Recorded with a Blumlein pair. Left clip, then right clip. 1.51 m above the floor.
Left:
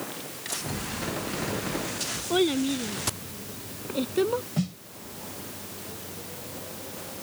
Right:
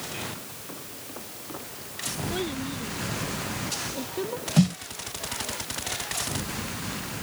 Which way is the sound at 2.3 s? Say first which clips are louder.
Left 11 dB; 25° left.